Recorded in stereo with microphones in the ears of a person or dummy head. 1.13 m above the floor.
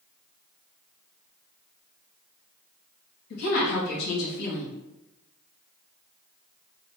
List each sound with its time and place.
3.3 s a woman speaking: 65° left (ahead or behind), 1.5 m